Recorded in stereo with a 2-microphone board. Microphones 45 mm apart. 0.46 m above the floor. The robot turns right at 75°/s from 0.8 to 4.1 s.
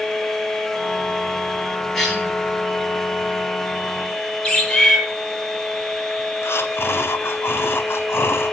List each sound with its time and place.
1.9 s a cough: 5° left (ahead or behind), 9 m; by 2.3 s 30° left (ahead or behind), 9 m
4.4 s a bird: 15° left (ahead or behind), 7 m
6.4 s breathing: 75° left (ahead or behind), 1.2 m